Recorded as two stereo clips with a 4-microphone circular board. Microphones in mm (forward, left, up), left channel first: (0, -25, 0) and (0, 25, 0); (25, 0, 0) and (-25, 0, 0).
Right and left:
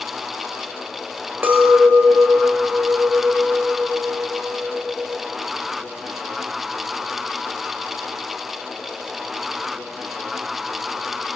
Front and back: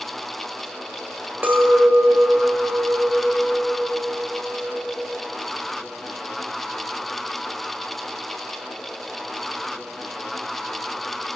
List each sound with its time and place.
1.4 s a clink: 130° left, 0.8 m